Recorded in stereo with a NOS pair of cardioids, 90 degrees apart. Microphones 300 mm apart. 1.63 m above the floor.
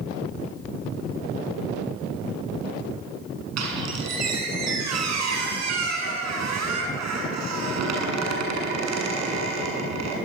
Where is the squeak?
65° right, 7.5 m.